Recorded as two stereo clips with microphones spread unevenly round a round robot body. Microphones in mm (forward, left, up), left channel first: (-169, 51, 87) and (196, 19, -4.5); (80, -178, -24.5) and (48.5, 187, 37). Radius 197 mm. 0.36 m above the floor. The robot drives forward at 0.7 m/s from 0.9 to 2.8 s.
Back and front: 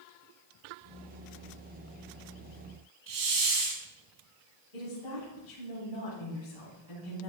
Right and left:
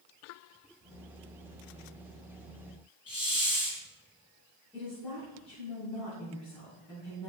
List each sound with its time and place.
3.1 s a hiss: 5° right, 4 m
4.7 s a woman speaking: 170° right, 3.5 m